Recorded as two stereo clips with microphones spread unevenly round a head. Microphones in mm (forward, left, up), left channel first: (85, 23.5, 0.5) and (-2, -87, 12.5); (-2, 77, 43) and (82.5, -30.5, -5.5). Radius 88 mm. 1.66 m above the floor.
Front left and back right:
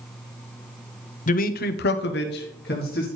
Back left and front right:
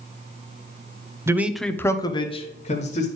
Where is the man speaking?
20° left, 0.9 m; by 3.1 s 95° left, 1.7 m.